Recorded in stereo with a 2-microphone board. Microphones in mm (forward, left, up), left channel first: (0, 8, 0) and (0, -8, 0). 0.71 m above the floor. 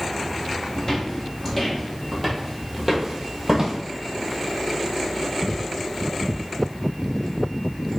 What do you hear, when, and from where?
0.8 s footsteps: 30° left (ahead or behind), 1.9 m; by 3.8 s 30° right (ahead or behind), 1.3 m